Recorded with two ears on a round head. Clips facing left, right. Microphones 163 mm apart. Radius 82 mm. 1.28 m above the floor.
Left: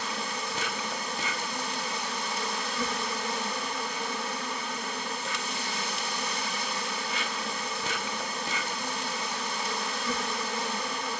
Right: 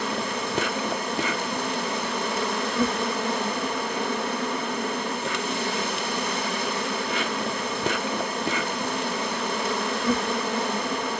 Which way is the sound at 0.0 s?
50° right (ahead or behind).